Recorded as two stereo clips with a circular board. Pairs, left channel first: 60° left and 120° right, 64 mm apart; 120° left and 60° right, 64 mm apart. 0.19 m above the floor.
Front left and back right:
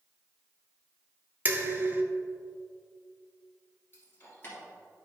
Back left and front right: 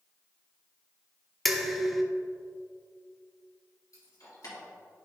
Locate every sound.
1.4 s dishes clattering: 150° right, 0.8 m
3.9 s keys jangling: 115° left, 2.5 m